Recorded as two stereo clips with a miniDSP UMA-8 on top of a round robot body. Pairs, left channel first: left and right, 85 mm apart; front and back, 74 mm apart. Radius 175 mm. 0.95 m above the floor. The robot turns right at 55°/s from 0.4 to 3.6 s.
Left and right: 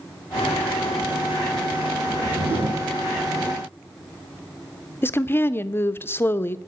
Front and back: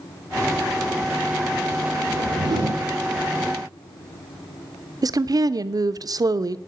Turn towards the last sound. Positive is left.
turn(degrees=150)